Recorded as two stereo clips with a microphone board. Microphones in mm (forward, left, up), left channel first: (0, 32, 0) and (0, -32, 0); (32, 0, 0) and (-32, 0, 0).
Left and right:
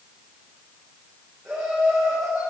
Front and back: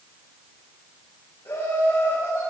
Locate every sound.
1.4 s laughter: 10° right, 6 m